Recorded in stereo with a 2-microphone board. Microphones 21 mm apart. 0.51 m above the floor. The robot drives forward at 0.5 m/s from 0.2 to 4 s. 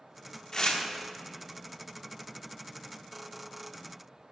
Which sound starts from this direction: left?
Tearing paper, at 0.5 s.